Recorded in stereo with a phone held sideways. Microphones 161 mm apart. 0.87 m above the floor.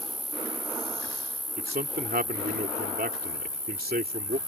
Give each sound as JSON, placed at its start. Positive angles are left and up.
{"t": 0.0, "sound": "an insect", "side_deg": 55}
{"t": 1.6, "sound": "a man speaking", "side_deg": -70}